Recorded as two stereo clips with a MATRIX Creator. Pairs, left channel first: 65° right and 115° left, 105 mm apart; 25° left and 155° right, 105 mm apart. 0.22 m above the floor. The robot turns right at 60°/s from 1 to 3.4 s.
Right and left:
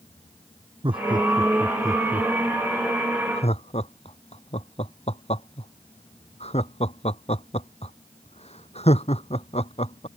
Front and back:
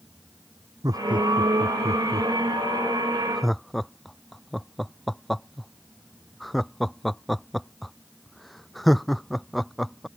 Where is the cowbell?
I don't hear a cowbell.